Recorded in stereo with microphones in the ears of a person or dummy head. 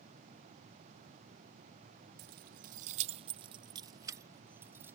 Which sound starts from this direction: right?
Keys jangling, at 2.2 s.